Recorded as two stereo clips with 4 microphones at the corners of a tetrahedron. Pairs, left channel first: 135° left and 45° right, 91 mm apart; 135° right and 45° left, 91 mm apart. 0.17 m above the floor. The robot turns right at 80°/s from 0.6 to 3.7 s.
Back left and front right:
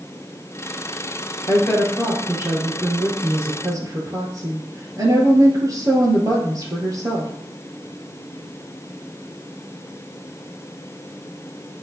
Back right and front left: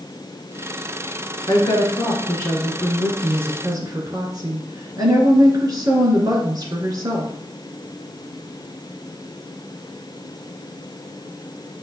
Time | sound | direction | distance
1.5 | a woman speaking | 175° right | 2.5 m